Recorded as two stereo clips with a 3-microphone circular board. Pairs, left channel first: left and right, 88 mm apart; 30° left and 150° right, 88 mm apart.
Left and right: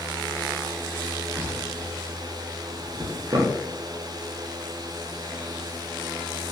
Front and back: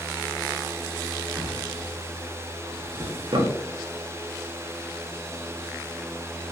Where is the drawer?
125° right, 0.5 m.